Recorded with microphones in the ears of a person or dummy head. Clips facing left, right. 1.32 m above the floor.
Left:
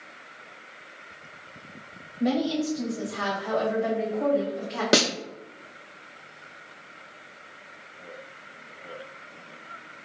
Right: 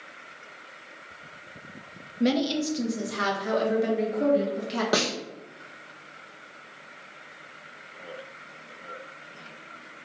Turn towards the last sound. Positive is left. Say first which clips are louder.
# left 5 dB
turn(degrees=30)  # may be behind; listen again after turning